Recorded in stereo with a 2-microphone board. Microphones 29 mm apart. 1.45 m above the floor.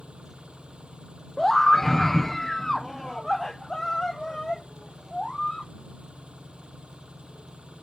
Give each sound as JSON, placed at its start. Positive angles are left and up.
{"t": 0.0, "sound": "an engine running", "side_deg": -40}
{"t": 1.4, "sound": "a scream", "side_deg": 15}